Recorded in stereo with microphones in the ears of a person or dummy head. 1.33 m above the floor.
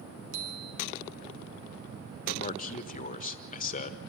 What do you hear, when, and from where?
0.3 s a bicycle bell: 85° right, 3 m
2.3 s a man speaking: 40° left (ahead or behind), 1.3 m